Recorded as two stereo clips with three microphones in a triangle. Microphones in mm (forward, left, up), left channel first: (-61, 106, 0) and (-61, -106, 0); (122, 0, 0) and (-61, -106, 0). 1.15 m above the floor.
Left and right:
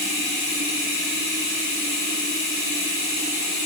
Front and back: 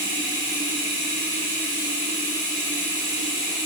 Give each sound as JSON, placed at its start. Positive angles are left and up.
{"t": 0.0, "sound": "running water", "azimuth_deg": -100, "distance_m": 5.0}